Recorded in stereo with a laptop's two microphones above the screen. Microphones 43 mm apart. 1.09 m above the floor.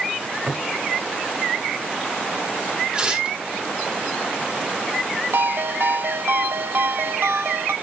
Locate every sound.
0.2 s a cupboard door: 45° right (ahead or behind), 3 m
2.9 s tearing paper: 25° right (ahead or behind), 2 m
5.3 s a ringtone: 65° right (ahead or behind), 0.7 m